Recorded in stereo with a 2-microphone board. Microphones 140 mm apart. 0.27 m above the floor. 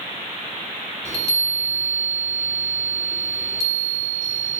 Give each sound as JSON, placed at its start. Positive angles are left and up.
{"t": 1.1, "sound": "a chime", "side_deg": -25, "distance_m": 0.7}